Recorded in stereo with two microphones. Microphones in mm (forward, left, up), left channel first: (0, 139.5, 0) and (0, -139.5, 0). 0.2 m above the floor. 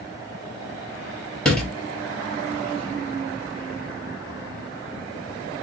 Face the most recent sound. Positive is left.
turn(degrees=5)  # may be behind; listen again after turning